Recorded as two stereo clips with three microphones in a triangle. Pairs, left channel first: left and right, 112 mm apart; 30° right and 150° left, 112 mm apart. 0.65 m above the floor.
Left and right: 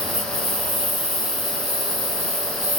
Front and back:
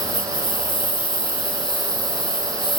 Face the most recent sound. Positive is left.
turn(degrees=-70)